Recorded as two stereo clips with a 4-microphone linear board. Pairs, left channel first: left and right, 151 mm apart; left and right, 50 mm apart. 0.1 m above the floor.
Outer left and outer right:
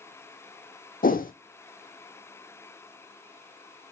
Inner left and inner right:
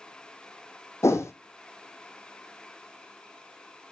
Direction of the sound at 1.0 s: 70° left (ahead or behind).